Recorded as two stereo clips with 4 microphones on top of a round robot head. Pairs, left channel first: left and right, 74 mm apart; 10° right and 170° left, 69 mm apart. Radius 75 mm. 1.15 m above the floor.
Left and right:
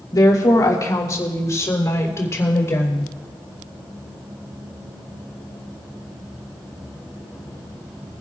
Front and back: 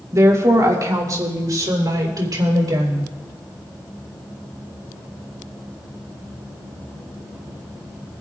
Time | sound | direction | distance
0.1 | a woman speaking | 130° left | 3 m